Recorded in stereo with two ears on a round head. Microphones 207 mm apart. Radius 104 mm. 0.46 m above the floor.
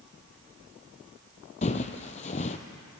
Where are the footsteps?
30° left (ahead or behind), 0.7 m.